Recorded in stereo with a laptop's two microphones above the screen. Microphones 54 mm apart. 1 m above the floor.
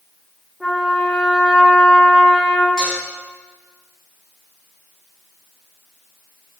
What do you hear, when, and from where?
0.6 s a trumpet: 5° right (ahead or behind), 3.5 m
2.8 s dishes clattering: 5° right (ahead or behind), 5.5 m